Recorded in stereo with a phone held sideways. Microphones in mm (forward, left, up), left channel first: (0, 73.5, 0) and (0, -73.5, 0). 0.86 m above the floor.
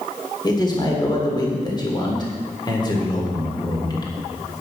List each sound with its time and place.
0.4 s a man speaking: 30° left (ahead or behind), 2 m